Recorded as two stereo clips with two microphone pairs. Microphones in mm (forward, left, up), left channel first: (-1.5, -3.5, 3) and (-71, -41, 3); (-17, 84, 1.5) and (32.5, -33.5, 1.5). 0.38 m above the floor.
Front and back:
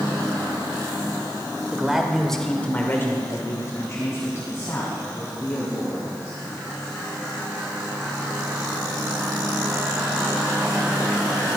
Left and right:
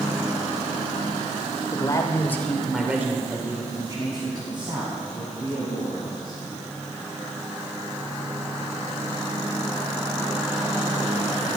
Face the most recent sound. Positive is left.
turn(degrees=-20)